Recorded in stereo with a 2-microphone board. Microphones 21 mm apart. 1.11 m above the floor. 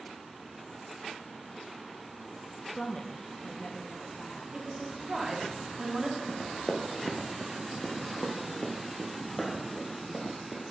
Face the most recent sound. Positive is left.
turn(degrees=10)  # may be behind; listen again after turning